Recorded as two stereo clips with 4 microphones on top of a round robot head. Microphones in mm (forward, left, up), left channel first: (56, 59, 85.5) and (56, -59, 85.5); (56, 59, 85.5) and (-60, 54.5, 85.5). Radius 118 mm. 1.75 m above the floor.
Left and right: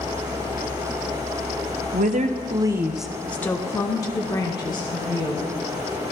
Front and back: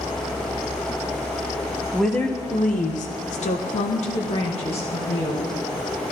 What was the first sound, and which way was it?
A woman speaking, 90° right.